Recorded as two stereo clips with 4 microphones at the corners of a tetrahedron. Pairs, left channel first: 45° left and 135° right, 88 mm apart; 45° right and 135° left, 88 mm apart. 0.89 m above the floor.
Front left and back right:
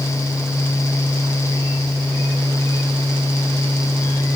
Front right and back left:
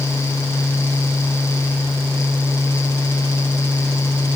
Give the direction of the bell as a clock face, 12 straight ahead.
No bell in this recording.